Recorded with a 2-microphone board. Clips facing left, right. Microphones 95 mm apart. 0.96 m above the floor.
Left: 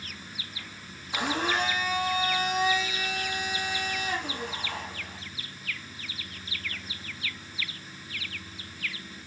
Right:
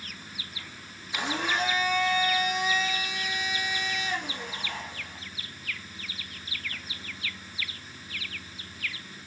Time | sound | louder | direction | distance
1.1 | a blender | left 1 dB | 50° left (ahead or behind) | 4 m